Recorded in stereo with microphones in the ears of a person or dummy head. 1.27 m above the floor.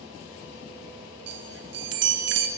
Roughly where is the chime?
Right.